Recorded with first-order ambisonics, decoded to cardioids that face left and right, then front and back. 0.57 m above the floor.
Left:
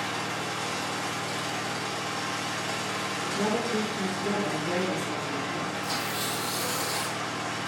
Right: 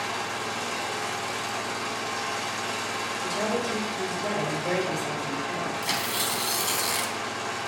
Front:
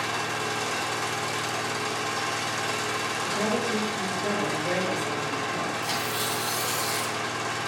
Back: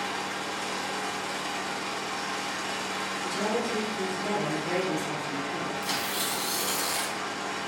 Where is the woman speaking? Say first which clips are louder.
Right 1 dB, front 1 dB; 65° right, 2.0 m.